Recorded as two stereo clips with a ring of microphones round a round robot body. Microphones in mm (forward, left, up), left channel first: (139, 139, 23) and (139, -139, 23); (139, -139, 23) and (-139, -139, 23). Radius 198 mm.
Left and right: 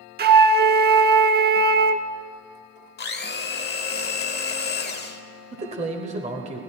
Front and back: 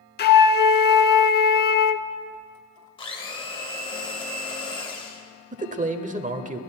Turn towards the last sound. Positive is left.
turn(degrees=-140)